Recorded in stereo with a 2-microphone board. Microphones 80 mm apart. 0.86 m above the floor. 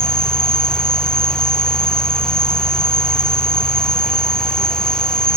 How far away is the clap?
I don't hear a clap.